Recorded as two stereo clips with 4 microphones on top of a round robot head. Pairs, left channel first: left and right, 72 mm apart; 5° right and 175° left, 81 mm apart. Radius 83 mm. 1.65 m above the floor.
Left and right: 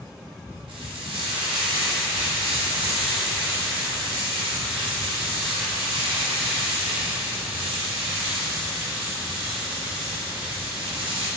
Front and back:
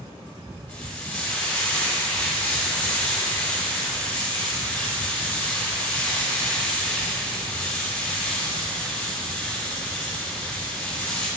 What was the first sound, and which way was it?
Frying, 85° right.